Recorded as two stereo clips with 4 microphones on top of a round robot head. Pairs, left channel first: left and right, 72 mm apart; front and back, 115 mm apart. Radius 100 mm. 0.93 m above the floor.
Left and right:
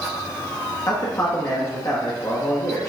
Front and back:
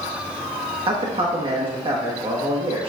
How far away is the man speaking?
About 1.5 m.